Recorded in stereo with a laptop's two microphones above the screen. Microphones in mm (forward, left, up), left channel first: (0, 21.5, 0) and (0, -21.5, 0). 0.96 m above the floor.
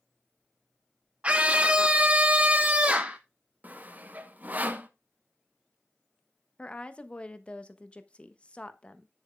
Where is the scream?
30° right (ahead or behind), 0.5 m.